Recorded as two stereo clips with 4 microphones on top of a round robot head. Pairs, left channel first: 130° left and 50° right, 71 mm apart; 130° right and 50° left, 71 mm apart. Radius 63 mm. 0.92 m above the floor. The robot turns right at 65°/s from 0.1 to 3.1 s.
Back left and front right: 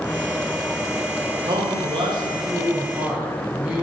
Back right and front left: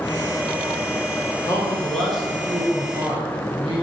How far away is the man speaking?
About 3 m.